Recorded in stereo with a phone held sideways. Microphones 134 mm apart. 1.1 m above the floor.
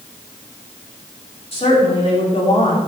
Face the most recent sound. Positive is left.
turn(degrees=45)  # may be behind; listen again after turning